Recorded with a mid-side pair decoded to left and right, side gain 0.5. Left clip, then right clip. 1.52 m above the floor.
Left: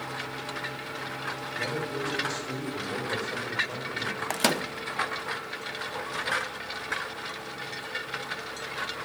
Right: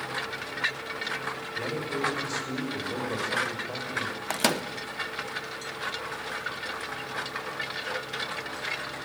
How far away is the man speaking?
About 7.5 m.